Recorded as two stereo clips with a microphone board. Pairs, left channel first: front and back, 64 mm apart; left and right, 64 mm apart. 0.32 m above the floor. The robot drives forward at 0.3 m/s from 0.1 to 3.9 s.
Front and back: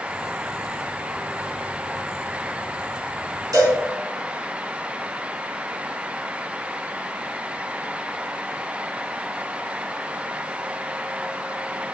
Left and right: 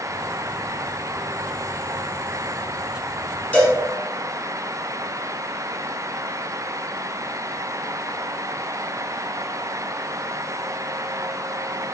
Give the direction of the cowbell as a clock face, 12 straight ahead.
7 o'clock.